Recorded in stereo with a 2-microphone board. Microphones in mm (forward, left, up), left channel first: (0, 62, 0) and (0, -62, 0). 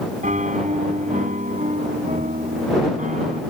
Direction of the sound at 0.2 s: 85° right.